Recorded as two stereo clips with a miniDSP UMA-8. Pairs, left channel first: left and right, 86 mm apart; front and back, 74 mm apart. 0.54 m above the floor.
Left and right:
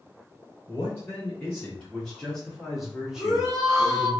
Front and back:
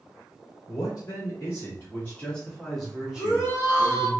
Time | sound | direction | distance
0.7 | a man speaking | 25° left | 1.5 m
3.2 | a shout | straight ahead | 1.7 m